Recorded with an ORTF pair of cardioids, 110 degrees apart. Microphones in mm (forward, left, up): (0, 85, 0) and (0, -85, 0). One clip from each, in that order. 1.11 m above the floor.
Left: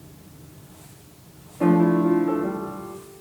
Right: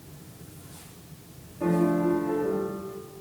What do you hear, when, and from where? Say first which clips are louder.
1.6 s a piano: left 5 dB; 65° left, 0.9 m